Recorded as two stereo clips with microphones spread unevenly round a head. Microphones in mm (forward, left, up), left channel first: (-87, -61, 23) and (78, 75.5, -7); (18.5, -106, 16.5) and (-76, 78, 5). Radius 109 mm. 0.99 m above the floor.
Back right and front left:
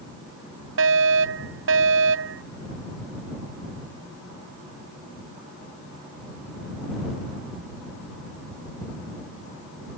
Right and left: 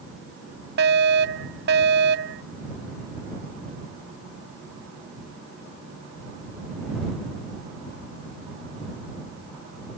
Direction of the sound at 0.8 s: 70° left.